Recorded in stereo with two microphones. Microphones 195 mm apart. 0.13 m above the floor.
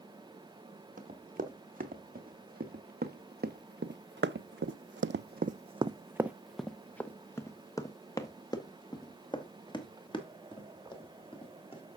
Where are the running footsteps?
45° right (ahead or behind), 2.5 m; by 11.8 s 25° left (ahead or behind), 3.5 m.